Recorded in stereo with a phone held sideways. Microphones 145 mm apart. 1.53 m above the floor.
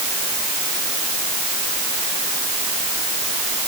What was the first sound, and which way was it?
Only background noise.